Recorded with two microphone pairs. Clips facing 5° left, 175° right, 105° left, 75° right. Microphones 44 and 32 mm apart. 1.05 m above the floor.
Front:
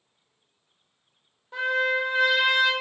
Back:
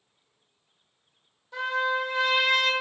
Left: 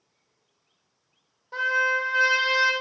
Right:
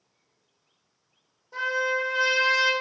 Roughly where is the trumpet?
Left.